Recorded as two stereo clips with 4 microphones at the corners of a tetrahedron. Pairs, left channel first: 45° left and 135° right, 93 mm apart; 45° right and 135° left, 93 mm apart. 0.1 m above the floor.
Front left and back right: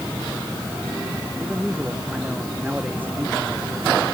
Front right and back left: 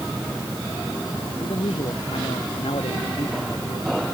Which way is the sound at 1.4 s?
55° right.